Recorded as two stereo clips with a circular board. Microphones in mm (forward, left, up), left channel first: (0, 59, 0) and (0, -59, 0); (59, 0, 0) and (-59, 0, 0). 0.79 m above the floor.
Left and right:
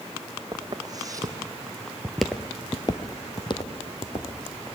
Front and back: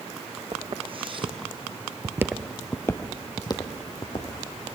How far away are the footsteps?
About 2.5 m.